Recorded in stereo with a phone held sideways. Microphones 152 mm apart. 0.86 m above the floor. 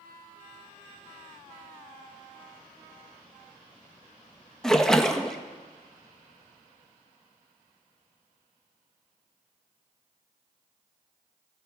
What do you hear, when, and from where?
4.6 s a splash: 5° left (ahead or behind), 0.6 m